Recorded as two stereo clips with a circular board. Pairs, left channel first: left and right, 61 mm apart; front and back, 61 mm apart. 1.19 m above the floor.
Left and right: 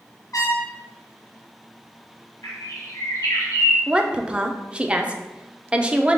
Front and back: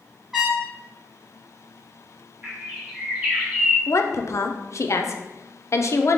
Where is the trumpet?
100° left, 1.4 m.